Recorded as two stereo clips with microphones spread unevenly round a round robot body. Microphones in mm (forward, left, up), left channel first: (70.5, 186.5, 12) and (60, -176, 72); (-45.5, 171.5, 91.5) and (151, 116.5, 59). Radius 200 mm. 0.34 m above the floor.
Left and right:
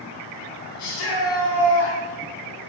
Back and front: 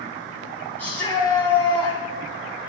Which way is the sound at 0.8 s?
80° left.